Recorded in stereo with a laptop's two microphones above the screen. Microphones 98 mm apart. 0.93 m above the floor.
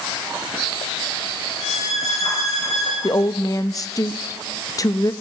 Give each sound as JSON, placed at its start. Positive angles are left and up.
{"t": 1.6, "sound": "a violin", "side_deg": 35, "distance_m": 5.5}
{"t": 3.0, "sound": "a woman speaking", "side_deg": 40, "distance_m": 0.7}